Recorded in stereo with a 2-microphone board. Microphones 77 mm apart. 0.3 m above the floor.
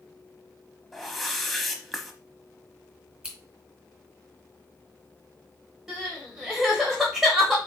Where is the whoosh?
Centre (ahead or behind), 0.7 m.